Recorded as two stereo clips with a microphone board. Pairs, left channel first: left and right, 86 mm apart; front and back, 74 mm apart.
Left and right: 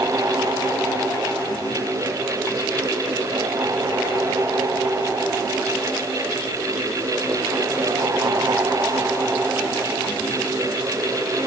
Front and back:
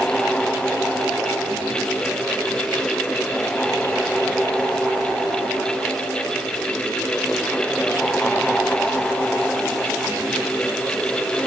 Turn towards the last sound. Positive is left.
No sound to turn to.